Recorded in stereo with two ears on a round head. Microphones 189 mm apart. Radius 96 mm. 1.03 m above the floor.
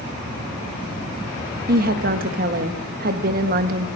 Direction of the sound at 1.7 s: 45° right (ahead or behind).